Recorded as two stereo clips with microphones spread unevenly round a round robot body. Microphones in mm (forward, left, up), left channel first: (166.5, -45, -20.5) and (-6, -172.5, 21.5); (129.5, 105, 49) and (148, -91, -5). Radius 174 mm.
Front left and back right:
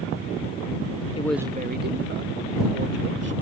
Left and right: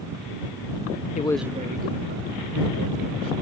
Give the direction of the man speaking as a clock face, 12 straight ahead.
11 o'clock.